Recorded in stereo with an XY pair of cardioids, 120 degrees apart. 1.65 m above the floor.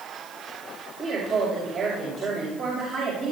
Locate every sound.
1.0 s a woman speaking: 50° right, 6 m